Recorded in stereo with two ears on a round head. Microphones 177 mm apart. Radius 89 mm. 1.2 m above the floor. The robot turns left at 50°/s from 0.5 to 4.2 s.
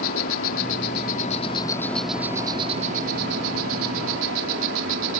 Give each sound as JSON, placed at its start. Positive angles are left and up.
{"t": 0.0, "sound": "an insect", "azimuth_deg": 80}